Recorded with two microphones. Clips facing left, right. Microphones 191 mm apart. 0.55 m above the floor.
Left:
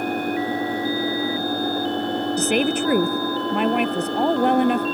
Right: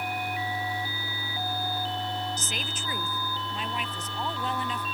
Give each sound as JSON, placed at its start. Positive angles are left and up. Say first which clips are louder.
{"t": 0.0, "sound": "an engine running", "louder": "left 10 dB", "side_deg": 60}
{"t": 2.4, "sound": "a woman speaking", "louder": "left 19 dB", "side_deg": 65}